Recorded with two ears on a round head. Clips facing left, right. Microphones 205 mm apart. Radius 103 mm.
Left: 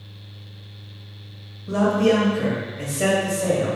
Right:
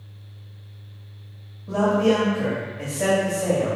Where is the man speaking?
20° left (ahead or behind), 1.5 m.